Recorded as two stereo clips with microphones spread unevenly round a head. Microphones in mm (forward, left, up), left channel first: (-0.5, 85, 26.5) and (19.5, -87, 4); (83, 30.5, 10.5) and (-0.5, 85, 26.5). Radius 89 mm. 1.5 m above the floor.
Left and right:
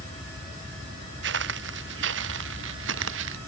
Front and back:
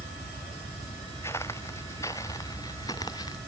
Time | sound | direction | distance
1.2 | footsteps | 110° right | ?